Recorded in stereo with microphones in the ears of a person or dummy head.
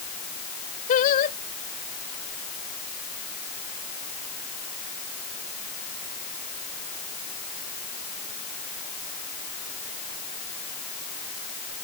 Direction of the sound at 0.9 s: 45° left (ahead or behind).